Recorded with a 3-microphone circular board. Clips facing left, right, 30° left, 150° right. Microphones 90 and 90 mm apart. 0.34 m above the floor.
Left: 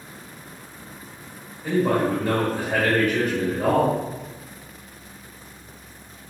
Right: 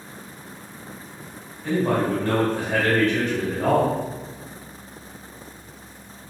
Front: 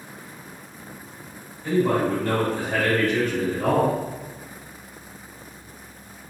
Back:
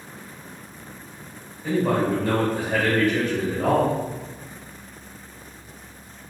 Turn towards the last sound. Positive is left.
turn(degrees=160)